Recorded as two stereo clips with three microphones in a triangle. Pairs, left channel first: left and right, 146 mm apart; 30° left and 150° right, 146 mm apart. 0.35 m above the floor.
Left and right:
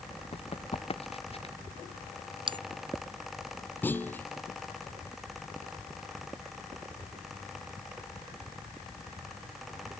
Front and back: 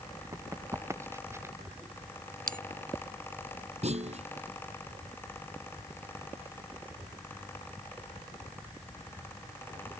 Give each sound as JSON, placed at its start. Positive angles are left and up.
{"t": 0.3, "sound": "running footsteps", "azimuth_deg": 140}
{"t": 2.5, "sound": "a bell", "azimuth_deg": -145}
{"t": 3.8, "sound": "a clunk", "azimuth_deg": 170}